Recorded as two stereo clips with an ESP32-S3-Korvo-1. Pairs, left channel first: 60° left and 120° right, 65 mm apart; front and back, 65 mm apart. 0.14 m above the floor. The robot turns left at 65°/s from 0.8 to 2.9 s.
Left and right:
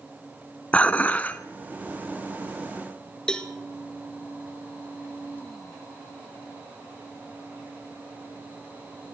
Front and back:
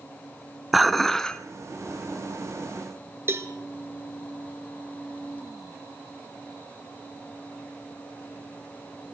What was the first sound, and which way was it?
Dishes clattering, 95° left.